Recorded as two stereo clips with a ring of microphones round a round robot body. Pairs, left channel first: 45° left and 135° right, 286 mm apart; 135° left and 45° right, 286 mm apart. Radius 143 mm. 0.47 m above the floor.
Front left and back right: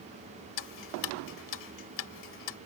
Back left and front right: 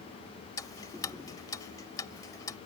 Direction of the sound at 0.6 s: 55° left.